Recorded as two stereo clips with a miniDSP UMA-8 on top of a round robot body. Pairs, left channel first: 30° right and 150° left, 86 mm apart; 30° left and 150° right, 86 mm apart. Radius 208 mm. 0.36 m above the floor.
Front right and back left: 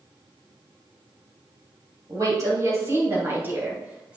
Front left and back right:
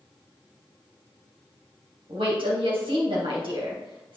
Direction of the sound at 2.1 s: 160° right.